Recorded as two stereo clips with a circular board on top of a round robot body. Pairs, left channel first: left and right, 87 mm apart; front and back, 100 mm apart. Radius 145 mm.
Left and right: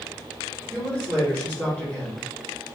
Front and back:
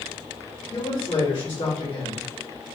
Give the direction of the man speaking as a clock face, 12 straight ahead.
11 o'clock.